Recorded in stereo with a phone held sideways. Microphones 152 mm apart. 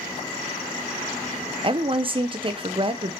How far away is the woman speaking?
About 0.5 m.